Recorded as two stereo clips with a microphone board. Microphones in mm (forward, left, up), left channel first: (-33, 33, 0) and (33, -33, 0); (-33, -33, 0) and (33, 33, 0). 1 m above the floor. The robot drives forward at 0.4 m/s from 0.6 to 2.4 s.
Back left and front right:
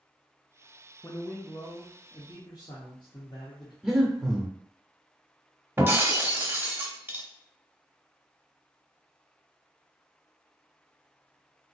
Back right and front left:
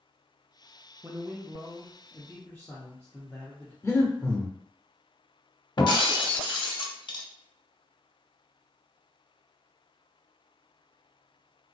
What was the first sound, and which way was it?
A man speaking, 95° left.